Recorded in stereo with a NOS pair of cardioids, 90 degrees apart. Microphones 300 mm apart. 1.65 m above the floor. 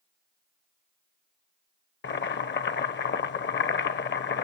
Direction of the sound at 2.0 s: 35° left.